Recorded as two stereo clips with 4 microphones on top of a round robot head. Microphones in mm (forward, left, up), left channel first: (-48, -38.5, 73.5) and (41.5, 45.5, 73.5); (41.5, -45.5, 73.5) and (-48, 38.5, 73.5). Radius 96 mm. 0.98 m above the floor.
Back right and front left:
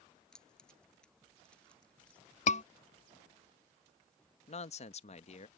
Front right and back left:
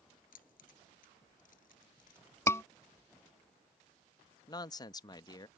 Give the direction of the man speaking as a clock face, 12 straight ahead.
3 o'clock.